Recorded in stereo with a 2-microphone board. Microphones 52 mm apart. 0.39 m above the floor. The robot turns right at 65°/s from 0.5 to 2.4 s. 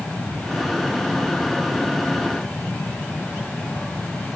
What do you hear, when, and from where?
Only background noise.